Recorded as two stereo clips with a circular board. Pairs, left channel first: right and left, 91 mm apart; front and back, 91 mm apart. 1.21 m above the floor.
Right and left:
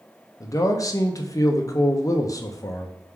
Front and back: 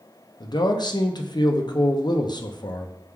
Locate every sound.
0.4 s a man speaking: 35° right, 0.5 m